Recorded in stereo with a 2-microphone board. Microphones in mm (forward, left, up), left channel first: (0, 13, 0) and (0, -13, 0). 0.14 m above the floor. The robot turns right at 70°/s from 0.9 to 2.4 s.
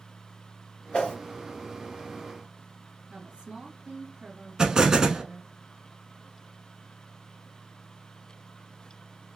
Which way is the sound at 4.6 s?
30° right (ahead or behind).